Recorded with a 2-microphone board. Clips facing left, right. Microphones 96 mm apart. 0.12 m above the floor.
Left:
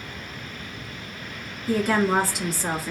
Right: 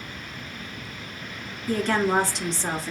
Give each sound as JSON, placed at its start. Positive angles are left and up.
{"t": 1.7, "sound": "a woman speaking", "side_deg": 5, "distance_m": 1.3}